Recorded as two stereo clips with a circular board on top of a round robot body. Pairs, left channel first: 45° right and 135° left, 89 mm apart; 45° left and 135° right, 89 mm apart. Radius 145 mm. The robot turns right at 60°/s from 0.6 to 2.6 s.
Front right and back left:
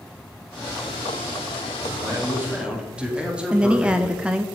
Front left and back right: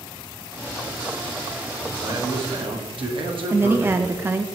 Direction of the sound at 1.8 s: 165° left.